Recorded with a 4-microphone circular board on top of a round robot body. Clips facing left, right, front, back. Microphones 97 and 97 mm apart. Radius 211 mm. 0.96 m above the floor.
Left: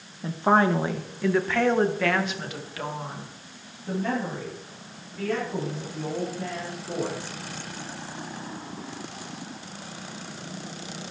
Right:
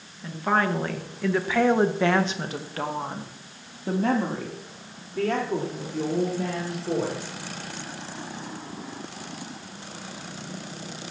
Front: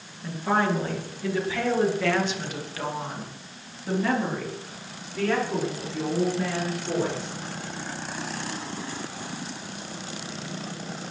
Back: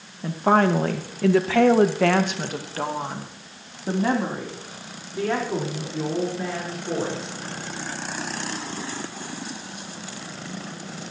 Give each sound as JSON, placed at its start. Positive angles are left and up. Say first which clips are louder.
{"t": 0.2, "sound": "a woman speaking", "louder": "left 3 dB, back 5 dB", "azimuth_deg": 145, "distance_m": 2.0}